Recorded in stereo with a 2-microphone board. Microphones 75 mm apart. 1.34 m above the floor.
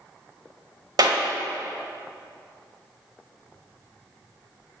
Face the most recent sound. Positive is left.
turn(degrees=-70)  # may be behind; listen again after turning